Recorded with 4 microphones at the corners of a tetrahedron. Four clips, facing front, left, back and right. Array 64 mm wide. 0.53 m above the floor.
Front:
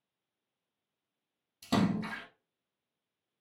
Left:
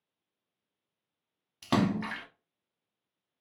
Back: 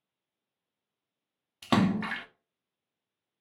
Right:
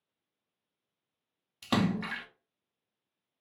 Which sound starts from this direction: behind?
A splash, at 1.6 s.